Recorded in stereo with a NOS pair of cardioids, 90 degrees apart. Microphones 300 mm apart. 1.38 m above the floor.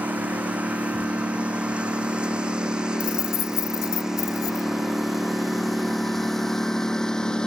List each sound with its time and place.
0.0 s a lawn mower: 5° right; by 7.5 s 5° left
3.0 s keys jangling: 65° left